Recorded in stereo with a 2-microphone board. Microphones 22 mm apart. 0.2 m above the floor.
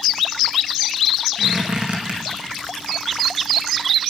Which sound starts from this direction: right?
A squeak, at 1.4 s.